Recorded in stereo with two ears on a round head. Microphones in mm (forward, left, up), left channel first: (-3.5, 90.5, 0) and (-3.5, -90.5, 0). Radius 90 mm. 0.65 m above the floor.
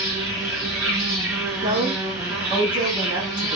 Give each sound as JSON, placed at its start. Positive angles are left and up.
{"t": 0.0, "sound": "an insect", "side_deg": -5, "distance_m": 2.5}
{"t": 1.6, "sound": "a woman speaking", "side_deg": -20, "distance_m": 0.7}